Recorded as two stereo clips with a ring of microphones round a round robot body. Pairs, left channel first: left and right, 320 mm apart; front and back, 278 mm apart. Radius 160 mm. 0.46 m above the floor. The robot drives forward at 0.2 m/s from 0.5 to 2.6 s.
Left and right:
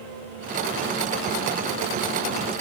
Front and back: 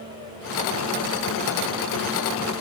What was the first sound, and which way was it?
Only background noise.